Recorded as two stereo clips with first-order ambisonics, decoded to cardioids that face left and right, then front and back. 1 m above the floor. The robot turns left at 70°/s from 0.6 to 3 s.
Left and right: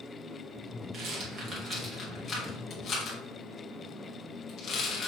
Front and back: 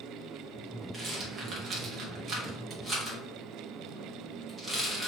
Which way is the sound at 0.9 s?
115° right.